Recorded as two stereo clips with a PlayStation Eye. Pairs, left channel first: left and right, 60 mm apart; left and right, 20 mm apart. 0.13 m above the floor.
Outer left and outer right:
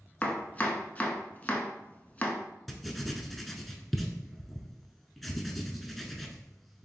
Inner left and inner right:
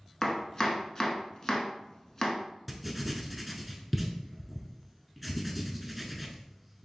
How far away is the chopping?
About 0.6 m.